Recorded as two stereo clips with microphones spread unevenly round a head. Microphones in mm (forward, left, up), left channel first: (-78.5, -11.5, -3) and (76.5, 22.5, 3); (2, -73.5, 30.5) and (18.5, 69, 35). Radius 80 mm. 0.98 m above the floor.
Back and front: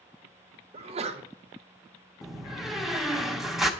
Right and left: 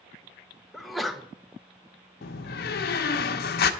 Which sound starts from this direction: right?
A door slam, at 2.2 s.